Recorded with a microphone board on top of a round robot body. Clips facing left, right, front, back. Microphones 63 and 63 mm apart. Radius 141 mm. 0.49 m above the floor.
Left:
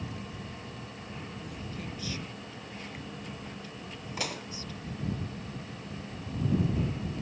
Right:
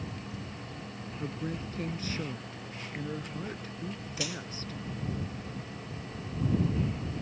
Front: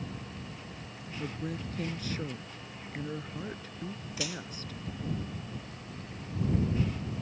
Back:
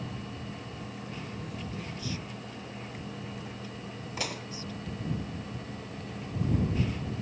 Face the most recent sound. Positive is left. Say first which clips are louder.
# left 2 dB, back 2 dB
turn(degrees=135)